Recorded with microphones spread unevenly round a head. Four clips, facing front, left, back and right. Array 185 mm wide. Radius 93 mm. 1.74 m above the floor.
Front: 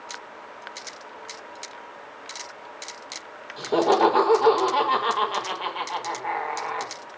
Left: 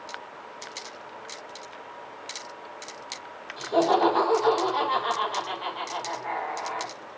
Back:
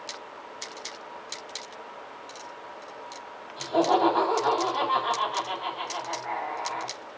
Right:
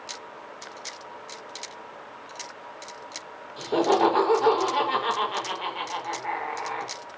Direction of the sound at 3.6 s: 30° right.